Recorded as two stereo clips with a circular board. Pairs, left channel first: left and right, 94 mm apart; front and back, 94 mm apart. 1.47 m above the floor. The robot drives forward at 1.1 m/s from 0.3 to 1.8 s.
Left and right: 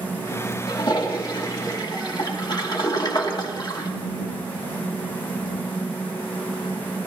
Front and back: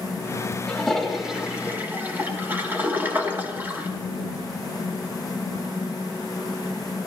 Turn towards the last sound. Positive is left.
turn(degrees=115)